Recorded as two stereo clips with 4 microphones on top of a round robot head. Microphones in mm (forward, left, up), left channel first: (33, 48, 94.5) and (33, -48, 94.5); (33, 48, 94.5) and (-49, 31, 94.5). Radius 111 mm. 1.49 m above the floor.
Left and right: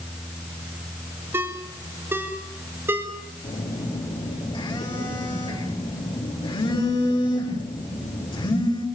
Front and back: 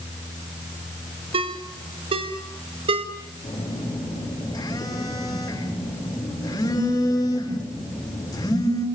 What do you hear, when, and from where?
1.3 s a ringtone: 160° right, 2 m
3.4 s a phone buzzing: 55° left, 6.5 m